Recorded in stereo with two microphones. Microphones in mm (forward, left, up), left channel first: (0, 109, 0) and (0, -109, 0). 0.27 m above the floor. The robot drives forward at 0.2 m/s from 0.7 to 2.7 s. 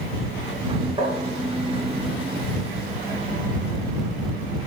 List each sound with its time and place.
1.0 s tapping: 25° right (ahead or behind), 3.5 m